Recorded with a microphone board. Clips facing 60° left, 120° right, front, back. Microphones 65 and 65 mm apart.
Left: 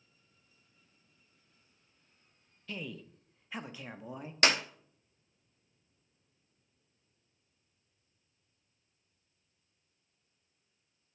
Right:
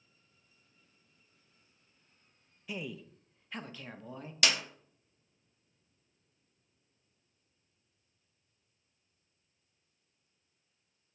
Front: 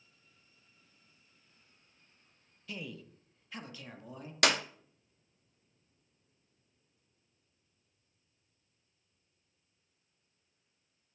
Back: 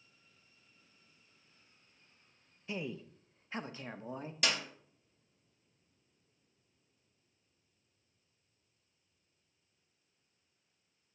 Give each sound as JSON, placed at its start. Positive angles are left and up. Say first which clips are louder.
{"t": 2.7, "sound": "a man speaking", "louder": "right 1 dB, back 4 dB", "azimuth_deg": -175, "distance_m": 0.7}
{"t": 4.4, "sound": "a clap", "louder": "left 4 dB, front 7 dB", "azimuth_deg": 10, "distance_m": 0.7}